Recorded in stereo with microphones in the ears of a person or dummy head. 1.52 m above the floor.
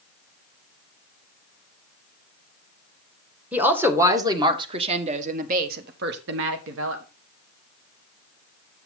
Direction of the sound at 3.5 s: 5° right (ahead or behind).